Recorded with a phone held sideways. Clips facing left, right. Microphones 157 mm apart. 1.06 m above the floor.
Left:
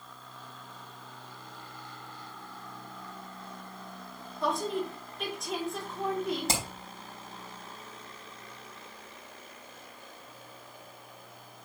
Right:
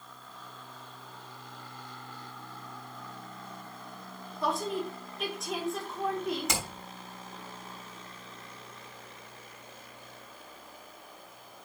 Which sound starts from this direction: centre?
A woman speaking, at 4.4 s.